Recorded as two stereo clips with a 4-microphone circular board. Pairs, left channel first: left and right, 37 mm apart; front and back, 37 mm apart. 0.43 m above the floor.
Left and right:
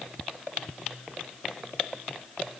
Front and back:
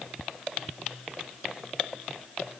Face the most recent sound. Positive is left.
No sound to turn to.